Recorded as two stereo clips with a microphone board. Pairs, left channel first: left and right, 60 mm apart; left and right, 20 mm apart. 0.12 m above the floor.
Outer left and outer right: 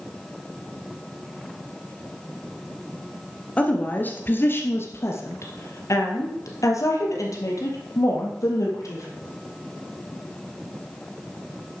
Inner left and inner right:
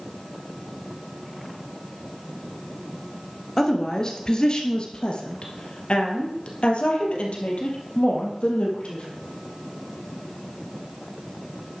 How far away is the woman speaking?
About 1.7 m.